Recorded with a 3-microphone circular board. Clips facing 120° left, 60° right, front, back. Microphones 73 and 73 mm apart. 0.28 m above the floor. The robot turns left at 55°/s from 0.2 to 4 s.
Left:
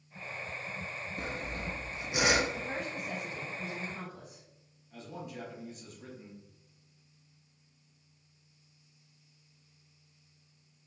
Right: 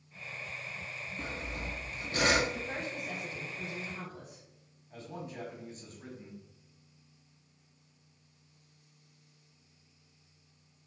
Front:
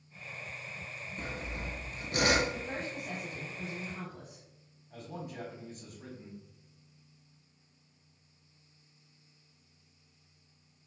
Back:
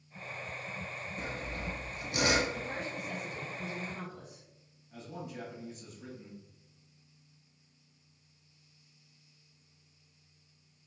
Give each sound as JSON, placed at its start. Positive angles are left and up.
{"t": 1.2, "sound": "sawing", "azimuth_deg": 95, "distance_m": 0.8}
{"t": 2.5, "sound": "a woman speaking", "azimuth_deg": 55, "distance_m": 1.8}
{"t": 4.9, "sound": "a man speaking", "azimuth_deg": -20, "distance_m": 1.8}